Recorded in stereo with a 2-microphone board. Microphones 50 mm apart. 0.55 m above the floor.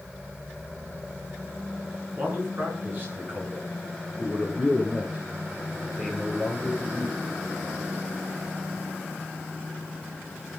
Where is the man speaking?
40° right (ahead or behind), 7.5 m; by 7.2 s 20° right (ahead or behind), 10 m.